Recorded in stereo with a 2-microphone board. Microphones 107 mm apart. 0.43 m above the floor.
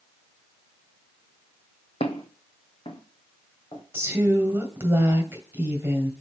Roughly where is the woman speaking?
Right.